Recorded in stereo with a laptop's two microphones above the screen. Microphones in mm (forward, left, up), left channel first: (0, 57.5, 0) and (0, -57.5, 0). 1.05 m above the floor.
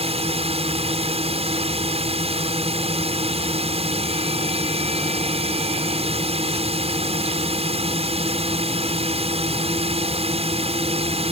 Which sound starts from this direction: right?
A drone, at 0.0 s.